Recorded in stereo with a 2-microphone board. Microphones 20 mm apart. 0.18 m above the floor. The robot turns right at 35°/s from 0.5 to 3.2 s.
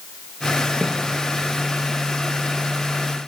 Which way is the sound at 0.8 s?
60° left (ahead or behind).